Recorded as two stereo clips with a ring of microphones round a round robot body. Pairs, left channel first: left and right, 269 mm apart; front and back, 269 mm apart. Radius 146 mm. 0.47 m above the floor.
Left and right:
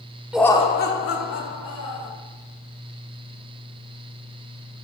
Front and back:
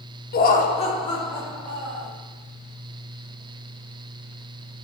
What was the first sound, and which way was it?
Laughter, 5° right.